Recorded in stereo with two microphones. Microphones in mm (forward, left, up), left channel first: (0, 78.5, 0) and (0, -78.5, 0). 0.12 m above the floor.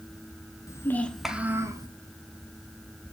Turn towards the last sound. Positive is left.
turn(degrees=-25)  # may be behind; listen again after turning